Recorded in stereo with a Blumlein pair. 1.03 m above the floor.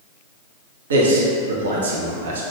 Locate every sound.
0.9 s a man speaking: 65° right, 0.6 m